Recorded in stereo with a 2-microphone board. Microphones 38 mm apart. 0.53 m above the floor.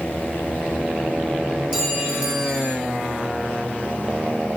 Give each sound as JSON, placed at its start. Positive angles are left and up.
{"t": 1.7, "sound": "a clink", "side_deg": -20, "distance_m": 6.0}